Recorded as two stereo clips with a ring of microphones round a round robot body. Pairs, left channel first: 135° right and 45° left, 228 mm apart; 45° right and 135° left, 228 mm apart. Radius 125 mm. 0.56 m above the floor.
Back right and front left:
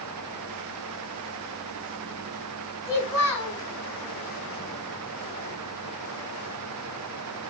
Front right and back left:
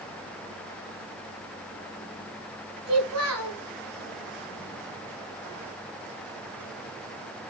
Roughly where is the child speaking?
Behind left.